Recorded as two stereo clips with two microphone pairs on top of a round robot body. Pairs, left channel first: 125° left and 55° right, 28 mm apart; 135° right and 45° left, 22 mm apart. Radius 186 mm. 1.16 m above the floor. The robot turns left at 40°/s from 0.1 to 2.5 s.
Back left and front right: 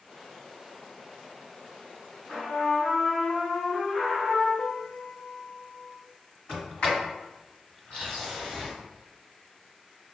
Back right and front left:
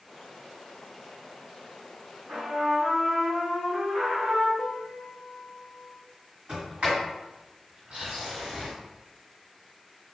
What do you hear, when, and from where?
2.3 s a trumpet: 35° left, 1.5 m; by 4.5 s 30° left, 1.5 m
4.6 s a piano: 170° left, 0.6 m
6.5 s a sliding door: 80° left, 1.9 m